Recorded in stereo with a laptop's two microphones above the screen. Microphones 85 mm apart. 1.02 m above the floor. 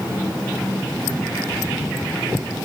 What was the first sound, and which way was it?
Only background noise.